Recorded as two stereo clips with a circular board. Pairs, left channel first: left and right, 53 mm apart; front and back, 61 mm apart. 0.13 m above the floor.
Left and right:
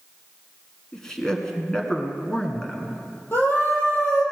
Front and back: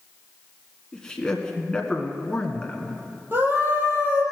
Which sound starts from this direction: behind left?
A scream, at 3.3 s.